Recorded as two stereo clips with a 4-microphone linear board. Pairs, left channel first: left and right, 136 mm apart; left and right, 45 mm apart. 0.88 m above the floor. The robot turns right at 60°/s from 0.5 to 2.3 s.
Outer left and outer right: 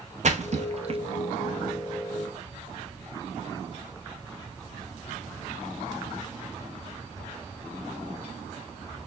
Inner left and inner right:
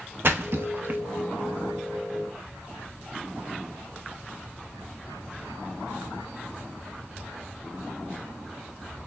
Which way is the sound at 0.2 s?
55° right (ahead or behind).